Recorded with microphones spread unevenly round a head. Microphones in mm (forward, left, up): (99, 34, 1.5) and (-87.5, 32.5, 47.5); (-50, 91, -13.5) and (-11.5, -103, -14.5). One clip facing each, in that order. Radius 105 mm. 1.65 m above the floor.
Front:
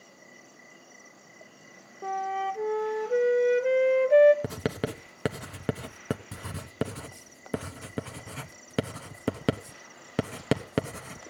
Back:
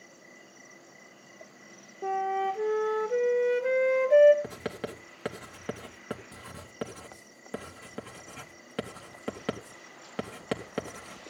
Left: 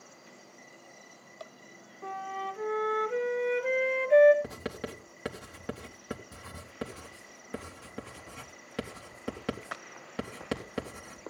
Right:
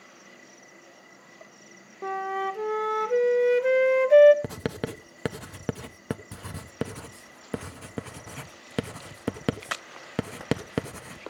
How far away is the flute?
About 0.8 m.